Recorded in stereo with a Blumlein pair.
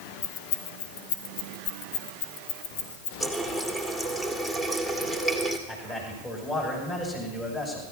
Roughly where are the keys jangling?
Ahead left.